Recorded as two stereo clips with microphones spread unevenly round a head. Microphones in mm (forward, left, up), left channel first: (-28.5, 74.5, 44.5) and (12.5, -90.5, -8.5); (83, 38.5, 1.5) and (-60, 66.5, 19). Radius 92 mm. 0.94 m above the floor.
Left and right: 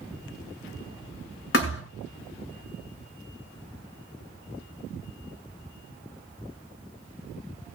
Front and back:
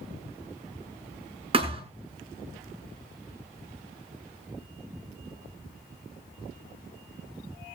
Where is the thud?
120° left, 6 m.